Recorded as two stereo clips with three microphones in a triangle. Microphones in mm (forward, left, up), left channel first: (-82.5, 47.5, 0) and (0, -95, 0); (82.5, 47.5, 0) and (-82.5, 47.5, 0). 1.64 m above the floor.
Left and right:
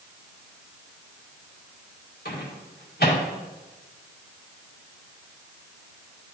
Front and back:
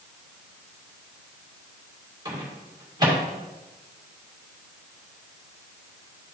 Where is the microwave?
115° left, 1.9 m.